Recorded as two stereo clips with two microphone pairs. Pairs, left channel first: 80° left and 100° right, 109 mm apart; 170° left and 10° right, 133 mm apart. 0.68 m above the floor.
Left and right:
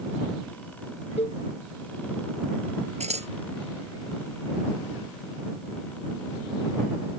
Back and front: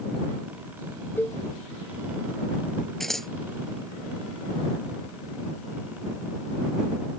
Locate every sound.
1.2 s a cowbell: 95° left
3.0 s scissors: 100° right